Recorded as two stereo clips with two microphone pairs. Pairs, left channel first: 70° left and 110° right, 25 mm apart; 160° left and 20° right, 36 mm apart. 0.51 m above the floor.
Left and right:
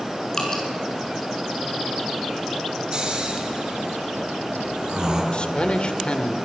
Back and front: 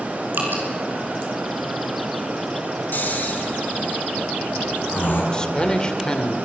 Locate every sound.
0.3 s dripping: 5° left, 5.5 m
2.9 s snoring: 170° right, 4.5 m
5.3 s a man speaking: 100° left, 1.7 m